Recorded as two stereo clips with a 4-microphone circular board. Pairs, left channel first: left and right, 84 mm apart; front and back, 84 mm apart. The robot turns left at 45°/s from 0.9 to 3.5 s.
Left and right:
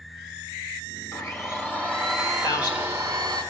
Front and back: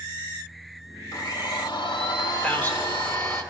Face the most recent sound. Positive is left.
turn(degrees=25)